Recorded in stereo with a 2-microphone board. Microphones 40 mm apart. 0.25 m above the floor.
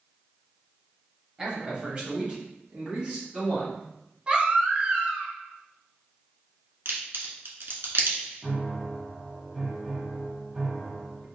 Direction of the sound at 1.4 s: 20° right (ahead or behind).